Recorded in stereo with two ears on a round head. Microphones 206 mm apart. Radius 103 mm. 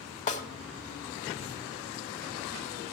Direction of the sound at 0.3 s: 35° left (ahead or behind).